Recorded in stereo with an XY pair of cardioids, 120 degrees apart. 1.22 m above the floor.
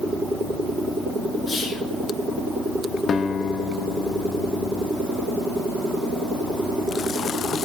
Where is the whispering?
55° left, 3.5 m.